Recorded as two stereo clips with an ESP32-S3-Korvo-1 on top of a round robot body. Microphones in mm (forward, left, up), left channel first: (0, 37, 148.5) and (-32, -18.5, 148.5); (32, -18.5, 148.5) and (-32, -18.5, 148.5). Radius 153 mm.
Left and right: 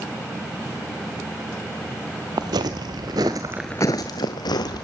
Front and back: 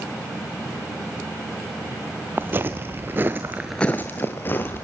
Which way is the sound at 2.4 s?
125° right.